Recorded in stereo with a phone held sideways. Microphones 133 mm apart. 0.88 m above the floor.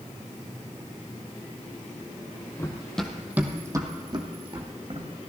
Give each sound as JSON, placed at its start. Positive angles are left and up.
{"t": 2.6, "sound": "running footsteps", "side_deg": 20, "distance_m": 1.4}